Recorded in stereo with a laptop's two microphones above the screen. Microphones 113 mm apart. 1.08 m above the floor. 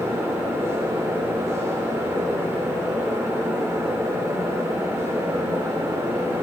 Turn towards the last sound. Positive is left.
turn(degrees=-20)  # may be behind; listen again after turning